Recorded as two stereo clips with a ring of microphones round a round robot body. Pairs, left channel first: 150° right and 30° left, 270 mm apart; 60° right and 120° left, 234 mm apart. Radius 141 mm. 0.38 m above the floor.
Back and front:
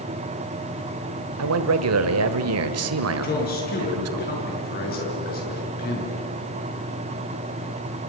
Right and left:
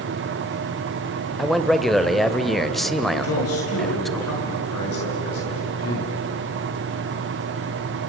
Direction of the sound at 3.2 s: 95° right.